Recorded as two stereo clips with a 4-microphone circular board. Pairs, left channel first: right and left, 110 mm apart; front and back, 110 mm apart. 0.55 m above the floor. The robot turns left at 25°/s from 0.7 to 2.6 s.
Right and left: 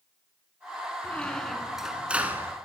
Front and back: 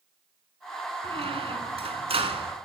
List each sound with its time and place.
1.0 s a squeak: 165° right, 0.8 m; by 2.5 s 160° left, 0.8 m